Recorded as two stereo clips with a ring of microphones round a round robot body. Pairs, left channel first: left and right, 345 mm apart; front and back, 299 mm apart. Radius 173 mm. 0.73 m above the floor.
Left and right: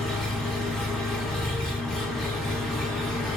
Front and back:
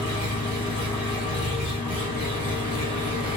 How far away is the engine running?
About 1.1 m.